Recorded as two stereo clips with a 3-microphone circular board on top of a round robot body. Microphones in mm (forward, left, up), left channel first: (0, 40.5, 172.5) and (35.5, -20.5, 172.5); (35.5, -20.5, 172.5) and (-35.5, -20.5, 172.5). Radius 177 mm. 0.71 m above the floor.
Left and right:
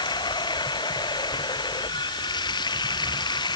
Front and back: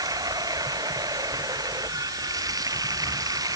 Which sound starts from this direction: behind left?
Running water, at 0.0 s.